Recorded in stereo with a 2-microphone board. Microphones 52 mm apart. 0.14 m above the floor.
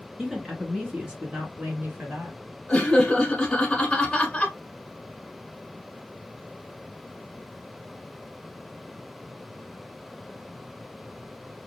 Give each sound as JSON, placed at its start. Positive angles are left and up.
{"t": 0.2, "sound": "a woman speaking", "side_deg": -5, "distance_m": 1.8}
{"t": 2.7, "sound": "laughter", "side_deg": 20, "distance_m": 1.1}